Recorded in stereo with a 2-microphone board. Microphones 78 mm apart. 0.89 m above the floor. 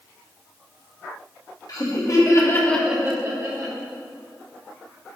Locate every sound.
1.7 s laughter: 55° left (ahead or behind), 1.9 m; by 3.8 s 50° right (ahead or behind), 1.6 m